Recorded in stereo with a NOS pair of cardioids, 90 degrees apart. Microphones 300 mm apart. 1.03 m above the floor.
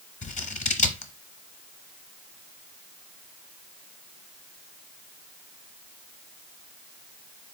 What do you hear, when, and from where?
0.2 s scissors: 25° left, 0.8 m